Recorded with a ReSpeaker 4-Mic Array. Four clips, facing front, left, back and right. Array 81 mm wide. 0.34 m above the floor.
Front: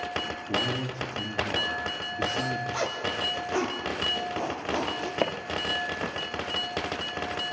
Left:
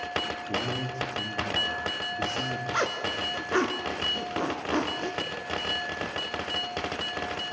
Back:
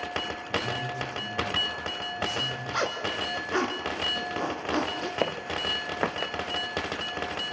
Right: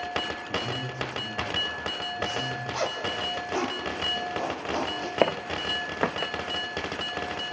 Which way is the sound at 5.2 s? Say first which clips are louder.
Right 8 dB, front 1 dB; 90° right.